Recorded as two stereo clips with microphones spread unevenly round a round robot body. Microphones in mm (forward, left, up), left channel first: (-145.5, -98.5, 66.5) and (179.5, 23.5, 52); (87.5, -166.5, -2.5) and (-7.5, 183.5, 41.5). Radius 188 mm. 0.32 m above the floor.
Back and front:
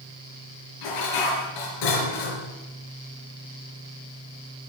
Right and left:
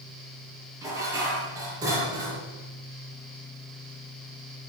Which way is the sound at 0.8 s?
170° right.